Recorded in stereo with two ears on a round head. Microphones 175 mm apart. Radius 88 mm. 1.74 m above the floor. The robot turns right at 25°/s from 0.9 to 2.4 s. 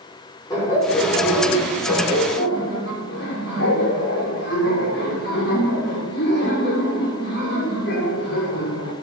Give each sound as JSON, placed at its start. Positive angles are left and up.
{"t": 0.5, "sound": "laughter", "azimuth_deg": 20, "distance_m": 6.5}